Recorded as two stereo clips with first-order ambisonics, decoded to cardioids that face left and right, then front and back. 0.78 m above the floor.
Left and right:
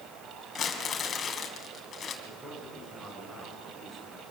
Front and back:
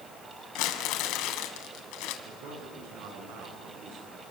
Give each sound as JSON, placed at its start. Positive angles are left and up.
{"t": 0.6, "sound": "crumpling", "azimuth_deg": 25, "distance_m": 3.0}
{"t": 2.2, "sound": "a man speaking", "azimuth_deg": -170, "distance_m": 8.5}